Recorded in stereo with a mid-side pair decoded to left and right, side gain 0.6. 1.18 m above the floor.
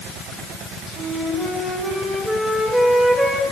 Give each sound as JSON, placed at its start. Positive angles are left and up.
{"t": 0.9, "sound": "a flute", "azimuth_deg": 0, "distance_m": 6.5}